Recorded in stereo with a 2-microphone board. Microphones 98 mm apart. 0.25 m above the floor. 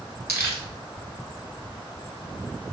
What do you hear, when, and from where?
0.3 s crumpling: 25° right (ahead or behind), 1.2 m